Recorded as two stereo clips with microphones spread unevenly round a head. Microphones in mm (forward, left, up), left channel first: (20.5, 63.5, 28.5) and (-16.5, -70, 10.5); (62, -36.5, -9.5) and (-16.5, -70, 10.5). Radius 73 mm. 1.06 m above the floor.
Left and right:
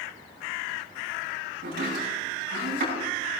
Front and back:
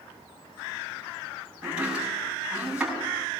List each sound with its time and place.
1.6 s chopping: 80° right, 7 m